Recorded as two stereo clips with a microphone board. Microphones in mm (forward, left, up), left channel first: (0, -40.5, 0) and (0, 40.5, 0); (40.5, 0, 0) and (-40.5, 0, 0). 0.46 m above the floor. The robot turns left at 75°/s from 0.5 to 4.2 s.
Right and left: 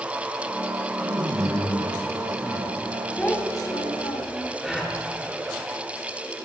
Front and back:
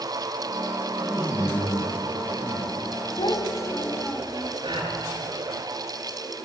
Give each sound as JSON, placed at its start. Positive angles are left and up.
{"t": 1.0, "sound": "a man speaking", "azimuth_deg": 100, "distance_m": 4.0}
{"t": 3.2, "sound": "a child speaking", "azimuth_deg": -15, "distance_m": 1.8}
{"t": 4.6, "sound": "a gasp", "azimuth_deg": -175, "distance_m": 7.5}